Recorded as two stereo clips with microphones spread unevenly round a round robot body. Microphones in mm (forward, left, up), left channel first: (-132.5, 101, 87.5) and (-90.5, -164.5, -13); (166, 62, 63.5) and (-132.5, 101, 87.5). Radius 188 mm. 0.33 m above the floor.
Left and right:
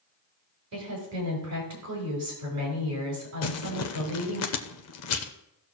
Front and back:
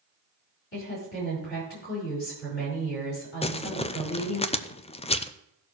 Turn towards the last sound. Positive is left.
turn(degrees=55)